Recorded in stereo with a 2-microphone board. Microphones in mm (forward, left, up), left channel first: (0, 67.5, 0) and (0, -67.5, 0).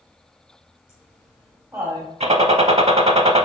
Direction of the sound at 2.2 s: 50° right (ahead or behind).